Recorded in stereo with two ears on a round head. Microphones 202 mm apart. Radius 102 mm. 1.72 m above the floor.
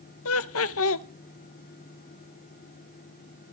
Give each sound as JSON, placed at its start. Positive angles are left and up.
{"t": 0.2, "sound": "laughter", "side_deg": 60, "distance_m": 0.7}